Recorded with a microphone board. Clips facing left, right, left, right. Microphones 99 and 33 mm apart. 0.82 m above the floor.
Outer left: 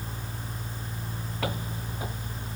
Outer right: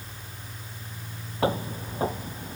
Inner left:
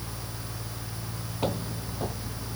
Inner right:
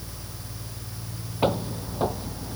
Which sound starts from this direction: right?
Footsteps, at 1.4 s.